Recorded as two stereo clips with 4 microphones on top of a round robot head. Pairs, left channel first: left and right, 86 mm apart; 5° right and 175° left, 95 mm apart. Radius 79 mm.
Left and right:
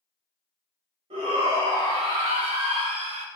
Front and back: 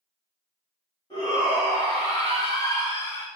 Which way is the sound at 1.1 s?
65° right.